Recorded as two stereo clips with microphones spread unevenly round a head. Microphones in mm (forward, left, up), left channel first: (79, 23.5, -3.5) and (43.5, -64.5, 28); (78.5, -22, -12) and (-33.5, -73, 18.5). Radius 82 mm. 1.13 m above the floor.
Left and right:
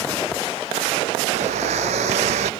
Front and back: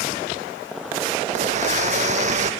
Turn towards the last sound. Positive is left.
turn(degrees=-130)